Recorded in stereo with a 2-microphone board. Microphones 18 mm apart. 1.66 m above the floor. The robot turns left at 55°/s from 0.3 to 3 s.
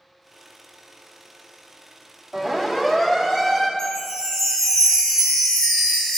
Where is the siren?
5° left (ahead or behind), 6 m; by 3.7 s 25° left (ahead or behind), 4.5 m.